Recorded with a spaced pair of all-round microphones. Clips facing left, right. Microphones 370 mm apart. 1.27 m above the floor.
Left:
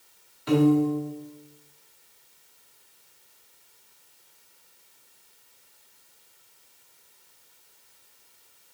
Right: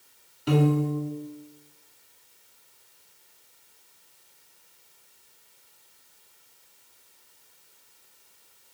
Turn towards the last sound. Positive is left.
turn(degrees=-45)  # may be behind; listen again after turning